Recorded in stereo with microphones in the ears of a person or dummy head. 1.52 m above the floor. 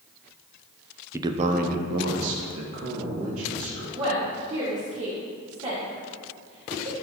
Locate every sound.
1.1 s a man speaking: 15° right (ahead or behind), 0.6 m; by 3.8 s 85° right, 3 m
3.9 s a woman speaking: 35° right (ahead or behind), 2.5 m